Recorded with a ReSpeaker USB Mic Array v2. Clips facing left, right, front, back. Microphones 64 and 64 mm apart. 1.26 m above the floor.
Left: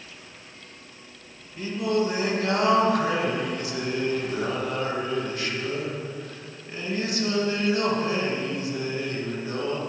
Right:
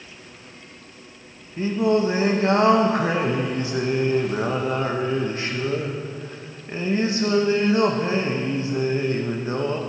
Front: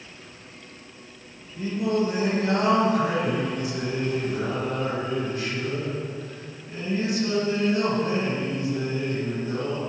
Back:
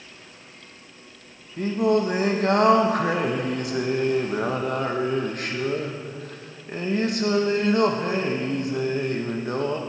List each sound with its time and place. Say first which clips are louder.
1.6 s singing: right 5 dB, back 4 dB; 150° right, 1.0 m